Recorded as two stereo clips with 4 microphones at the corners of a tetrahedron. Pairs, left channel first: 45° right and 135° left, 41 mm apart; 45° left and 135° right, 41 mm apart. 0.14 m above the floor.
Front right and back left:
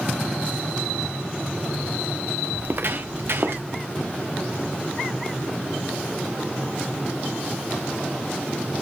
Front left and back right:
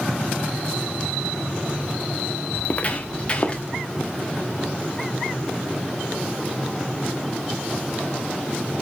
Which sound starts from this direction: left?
Footsteps, at 2.5 s.